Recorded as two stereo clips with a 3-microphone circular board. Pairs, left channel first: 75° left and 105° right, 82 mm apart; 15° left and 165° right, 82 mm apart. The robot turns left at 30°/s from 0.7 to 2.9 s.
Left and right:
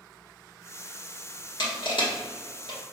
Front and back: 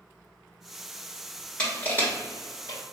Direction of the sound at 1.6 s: 90° left.